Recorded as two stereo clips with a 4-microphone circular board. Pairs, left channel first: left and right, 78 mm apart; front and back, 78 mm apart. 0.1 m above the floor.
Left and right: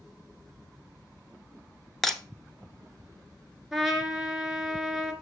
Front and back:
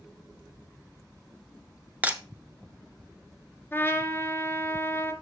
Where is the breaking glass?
160° left, 0.6 m.